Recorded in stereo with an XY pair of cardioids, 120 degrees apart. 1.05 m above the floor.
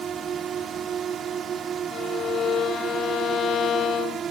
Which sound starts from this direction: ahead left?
A violin, at 1.9 s.